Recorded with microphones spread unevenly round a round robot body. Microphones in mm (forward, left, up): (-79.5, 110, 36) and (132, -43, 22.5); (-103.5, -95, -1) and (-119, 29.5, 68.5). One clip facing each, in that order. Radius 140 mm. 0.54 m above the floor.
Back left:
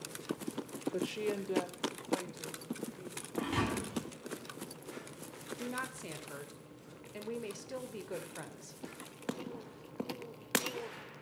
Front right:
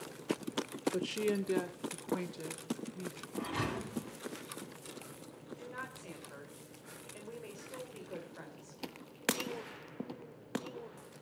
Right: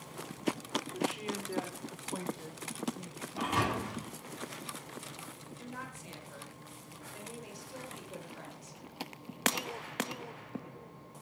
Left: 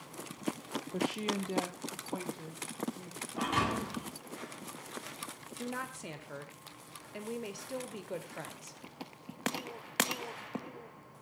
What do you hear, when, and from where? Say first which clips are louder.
0.9 s a woman speaking: front right 1 dB, left 4 dB; 35° left, 1.1 m; by 3.3 s 10° right, 2.5 m
3.4 s a thud: back left 4 dB, even; 170° right, 9.5 m
5.6 s a woman speaking: back left 6 dB, left 7 dB; 120° left, 2.5 m